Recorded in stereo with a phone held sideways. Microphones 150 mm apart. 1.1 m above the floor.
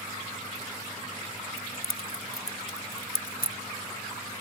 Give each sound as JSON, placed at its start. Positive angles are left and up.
{"t": 1.6, "sound": "keys jangling", "side_deg": 85}